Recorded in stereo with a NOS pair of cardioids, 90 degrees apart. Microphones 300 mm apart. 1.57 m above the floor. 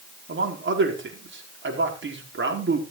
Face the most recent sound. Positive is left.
turn(degrees=-40)